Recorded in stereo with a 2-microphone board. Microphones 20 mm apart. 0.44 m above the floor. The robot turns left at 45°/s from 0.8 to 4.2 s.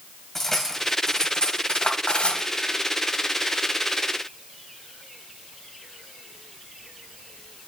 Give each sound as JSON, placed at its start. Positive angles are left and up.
{"t": 0.3, "sound": "cutlery clinking", "side_deg": 20, "distance_m": 1.6}